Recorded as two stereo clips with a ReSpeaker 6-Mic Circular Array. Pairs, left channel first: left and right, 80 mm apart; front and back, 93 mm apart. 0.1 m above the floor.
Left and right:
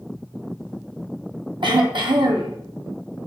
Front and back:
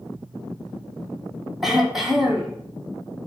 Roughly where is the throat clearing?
Right.